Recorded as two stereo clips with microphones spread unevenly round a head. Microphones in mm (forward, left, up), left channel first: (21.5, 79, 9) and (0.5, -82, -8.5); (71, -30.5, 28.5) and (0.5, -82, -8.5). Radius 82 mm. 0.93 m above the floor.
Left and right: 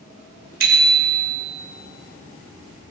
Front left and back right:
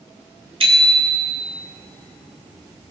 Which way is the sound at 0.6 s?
135° right.